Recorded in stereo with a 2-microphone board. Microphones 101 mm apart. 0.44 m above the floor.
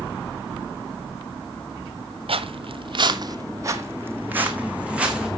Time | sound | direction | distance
2.3 | footsteps | 70° right (ahead or behind) | 0.9 m